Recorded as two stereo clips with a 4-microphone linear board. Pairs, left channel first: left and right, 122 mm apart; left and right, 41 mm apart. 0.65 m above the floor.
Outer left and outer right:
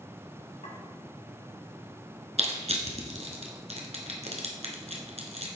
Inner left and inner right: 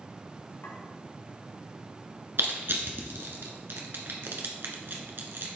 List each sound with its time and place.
0.6 s a clink: 70° left (ahead or behind), 2.5 m
2.4 s crushing: 65° right (ahead or behind), 1.2 m